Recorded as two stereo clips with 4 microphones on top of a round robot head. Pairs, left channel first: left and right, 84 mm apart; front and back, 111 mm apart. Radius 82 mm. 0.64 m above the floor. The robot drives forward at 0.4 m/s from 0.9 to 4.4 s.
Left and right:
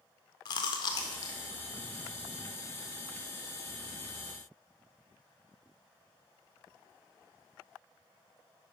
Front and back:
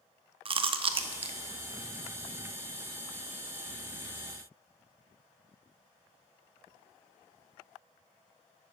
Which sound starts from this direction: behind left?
Chewing, at 0.5 s.